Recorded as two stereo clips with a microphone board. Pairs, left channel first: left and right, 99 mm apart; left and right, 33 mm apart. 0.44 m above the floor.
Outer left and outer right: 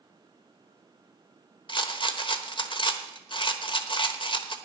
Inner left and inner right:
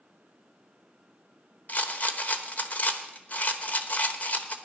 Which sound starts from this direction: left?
A rattle, at 1.7 s.